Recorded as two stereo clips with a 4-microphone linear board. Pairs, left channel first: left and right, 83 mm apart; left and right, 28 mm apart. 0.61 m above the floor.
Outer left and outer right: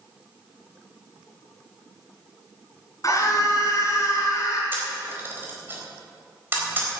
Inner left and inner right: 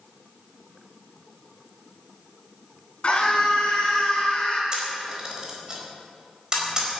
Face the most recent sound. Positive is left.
turn(degrees=-25)  # may be behind; listen again after turning